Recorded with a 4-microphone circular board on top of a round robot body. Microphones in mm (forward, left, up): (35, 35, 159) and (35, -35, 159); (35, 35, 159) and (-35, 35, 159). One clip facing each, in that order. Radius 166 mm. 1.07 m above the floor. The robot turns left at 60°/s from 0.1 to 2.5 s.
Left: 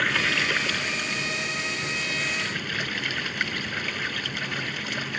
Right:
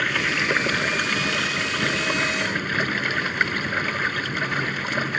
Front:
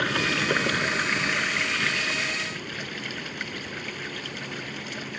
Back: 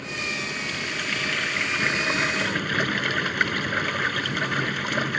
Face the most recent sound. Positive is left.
turn(degrees=-145)